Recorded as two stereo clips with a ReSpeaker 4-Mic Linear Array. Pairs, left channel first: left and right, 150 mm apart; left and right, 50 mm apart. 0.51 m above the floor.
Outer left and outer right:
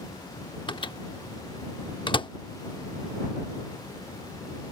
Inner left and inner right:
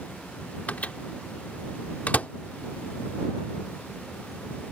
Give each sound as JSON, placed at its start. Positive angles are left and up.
{"t": 0.7, "sound": "a microwave", "side_deg": 35}